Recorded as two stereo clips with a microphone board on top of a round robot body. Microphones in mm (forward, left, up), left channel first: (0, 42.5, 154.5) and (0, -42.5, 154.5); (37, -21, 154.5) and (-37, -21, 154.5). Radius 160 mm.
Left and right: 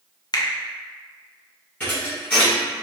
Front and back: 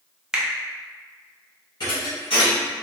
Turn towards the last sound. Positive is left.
turn(degrees=15)